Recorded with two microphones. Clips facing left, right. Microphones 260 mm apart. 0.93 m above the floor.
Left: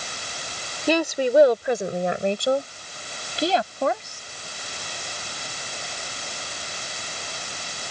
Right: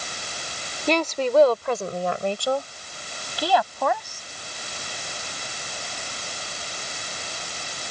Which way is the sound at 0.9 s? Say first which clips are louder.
Left 2 dB; 10° left (ahead or behind).